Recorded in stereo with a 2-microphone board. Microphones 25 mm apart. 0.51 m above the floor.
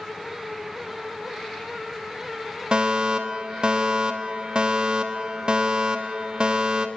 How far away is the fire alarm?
About 3.5 m.